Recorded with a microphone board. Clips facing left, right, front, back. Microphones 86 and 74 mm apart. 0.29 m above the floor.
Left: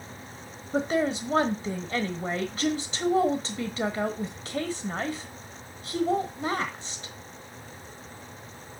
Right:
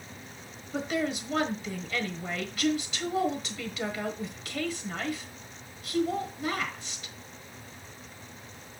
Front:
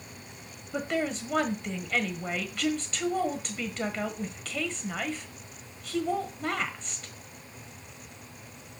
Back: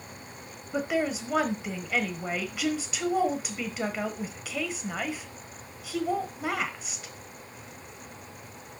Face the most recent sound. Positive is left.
turn(degrees=105)